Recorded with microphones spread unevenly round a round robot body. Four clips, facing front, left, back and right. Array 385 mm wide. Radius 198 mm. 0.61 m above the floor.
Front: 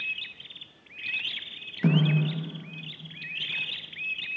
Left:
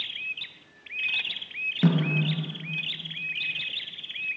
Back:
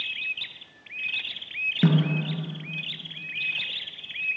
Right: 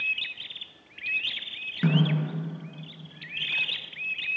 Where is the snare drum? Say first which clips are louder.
Left 1 dB, back 1 dB; 170° left, 5.5 m.